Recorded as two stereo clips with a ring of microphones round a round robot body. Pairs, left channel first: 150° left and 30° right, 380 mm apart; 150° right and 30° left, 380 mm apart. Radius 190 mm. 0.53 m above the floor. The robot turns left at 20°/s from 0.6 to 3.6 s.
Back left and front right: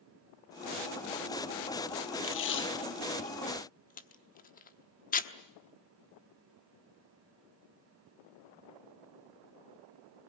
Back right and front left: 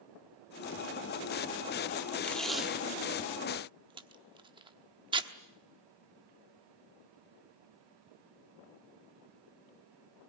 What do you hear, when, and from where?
2.2 s tape being pulled: 125° left, 1.0 m; by 5.3 s 100° left, 1.0 m